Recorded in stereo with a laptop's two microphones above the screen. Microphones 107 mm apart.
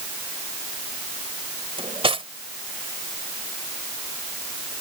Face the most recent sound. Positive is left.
turn(degrees=-60)  # may be behind; listen again after turning